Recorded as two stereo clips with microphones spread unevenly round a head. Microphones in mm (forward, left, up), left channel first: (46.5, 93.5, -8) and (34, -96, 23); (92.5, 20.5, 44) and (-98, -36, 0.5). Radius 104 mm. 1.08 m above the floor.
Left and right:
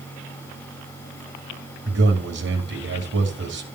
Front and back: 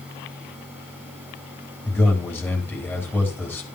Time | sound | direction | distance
1.9 | a man speaking | 75° right | 3 m